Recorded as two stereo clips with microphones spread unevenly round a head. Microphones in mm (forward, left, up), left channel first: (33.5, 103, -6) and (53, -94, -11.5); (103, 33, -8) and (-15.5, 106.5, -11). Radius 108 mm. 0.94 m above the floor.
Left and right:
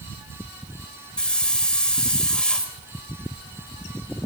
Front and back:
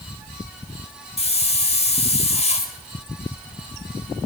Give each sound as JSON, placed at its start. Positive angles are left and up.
{"t": 1.2, "sound": "a hiss", "azimuth_deg": 10, "distance_m": 5.0}